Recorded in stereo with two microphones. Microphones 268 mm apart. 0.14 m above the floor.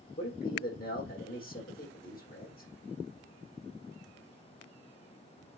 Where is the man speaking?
35° left (ahead or behind), 6.5 m.